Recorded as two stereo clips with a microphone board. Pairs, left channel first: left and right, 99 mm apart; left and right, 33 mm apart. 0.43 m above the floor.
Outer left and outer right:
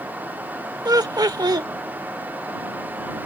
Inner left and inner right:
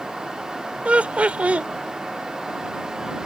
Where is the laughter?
45° right (ahead or behind).